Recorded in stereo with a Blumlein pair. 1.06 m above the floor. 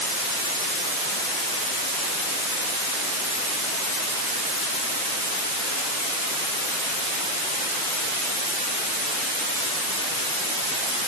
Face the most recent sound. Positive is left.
No sound to turn to.